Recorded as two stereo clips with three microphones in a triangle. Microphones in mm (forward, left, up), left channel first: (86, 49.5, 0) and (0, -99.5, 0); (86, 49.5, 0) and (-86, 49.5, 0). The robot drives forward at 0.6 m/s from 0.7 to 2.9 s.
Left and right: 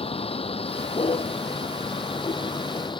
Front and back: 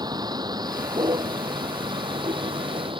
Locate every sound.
0.0 s a vehicle: 115° left; by 3.0 s 120° left